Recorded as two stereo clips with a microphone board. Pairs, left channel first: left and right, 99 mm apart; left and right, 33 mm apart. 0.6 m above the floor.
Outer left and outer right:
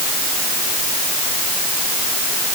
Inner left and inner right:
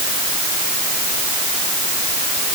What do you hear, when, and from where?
Only background noise.